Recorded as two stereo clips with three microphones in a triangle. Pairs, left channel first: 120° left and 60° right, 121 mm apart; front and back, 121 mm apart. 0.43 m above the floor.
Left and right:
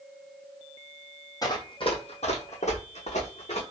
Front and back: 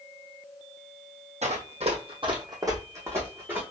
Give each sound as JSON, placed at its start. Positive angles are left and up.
{"t": 1.4, "sound": "running footsteps", "azimuth_deg": 175, "distance_m": 0.9}